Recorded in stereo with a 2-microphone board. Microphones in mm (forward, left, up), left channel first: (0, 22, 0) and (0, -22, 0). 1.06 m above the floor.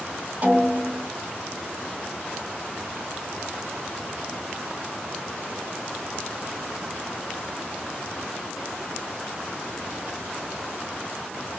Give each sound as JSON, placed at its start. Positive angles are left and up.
{"t": 0.4, "sound": "a snare drum", "side_deg": -45, "distance_m": 1.3}